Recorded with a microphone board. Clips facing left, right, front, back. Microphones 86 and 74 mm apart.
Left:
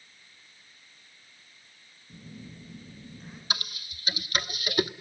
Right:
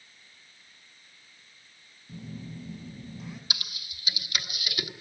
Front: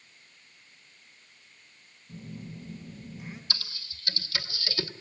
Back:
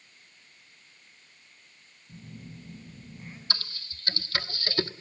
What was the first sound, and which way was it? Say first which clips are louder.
A phone buzzing: right 5 dB, front 4 dB; 80° right.